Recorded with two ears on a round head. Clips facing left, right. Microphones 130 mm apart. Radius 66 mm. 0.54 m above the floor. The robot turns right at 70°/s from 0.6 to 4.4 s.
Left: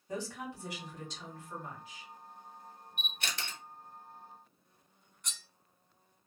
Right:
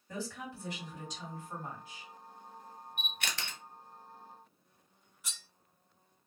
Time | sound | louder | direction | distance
0.1 | a woman speaking | left 2 dB | 160° left | 1.8 m
3.0 | a camera shutter | even | 40° right (ahead or behind) | 1.2 m
5.2 | cutlery clinking | left 1 dB | 5° right (ahead or behind) | 0.6 m